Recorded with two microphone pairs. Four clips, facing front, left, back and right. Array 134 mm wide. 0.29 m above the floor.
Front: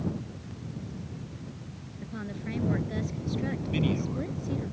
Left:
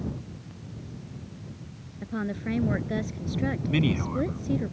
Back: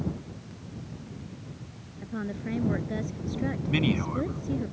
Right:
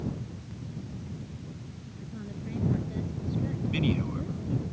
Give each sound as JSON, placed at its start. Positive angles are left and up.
{"t": 2.0, "sound": "a woman speaking", "azimuth_deg": 100}
{"t": 3.7, "sound": "a man speaking", "azimuth_deg": 140}